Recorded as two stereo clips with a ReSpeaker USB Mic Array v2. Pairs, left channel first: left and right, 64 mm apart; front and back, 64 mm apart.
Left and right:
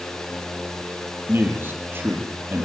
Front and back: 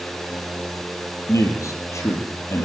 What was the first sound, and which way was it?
A man speaking, 35° right.